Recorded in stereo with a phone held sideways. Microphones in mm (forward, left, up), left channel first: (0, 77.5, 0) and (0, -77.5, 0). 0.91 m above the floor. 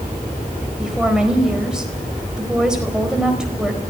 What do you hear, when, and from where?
0.8 s a woman speaking: 5° right (ahead or behind), 4.5 m